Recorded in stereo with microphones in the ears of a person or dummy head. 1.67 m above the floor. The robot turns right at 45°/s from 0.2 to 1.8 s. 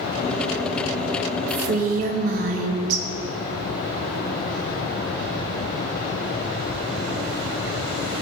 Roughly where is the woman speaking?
Right.